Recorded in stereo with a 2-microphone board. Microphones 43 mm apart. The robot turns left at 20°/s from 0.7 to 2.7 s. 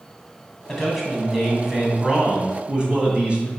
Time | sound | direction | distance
0.7 | a man speaking | 10° left | 2.5 m